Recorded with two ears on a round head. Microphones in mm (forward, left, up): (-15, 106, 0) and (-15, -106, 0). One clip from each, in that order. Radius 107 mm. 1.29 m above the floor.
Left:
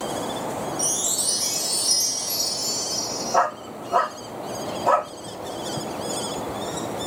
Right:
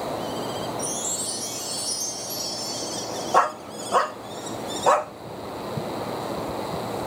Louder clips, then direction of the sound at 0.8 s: Left 4 dB; 35° left (ahead or behind).